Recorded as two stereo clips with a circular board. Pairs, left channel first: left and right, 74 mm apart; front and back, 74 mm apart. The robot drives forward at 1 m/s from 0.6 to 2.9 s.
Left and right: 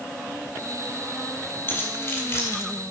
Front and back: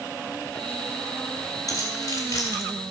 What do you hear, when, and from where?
1.7 s keys jangling: 35° left, 3.5 m; by 2.6 s 45° left, 2.5 m